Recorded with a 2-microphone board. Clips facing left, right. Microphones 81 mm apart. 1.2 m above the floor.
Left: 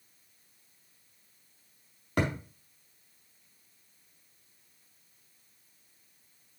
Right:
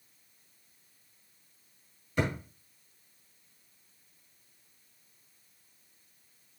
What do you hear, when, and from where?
2.2 s a thud: 65° left (ahead or behind), 3.5 m